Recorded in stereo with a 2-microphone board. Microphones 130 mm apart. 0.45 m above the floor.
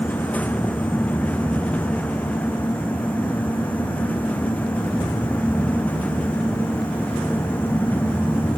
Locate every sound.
Only background noise.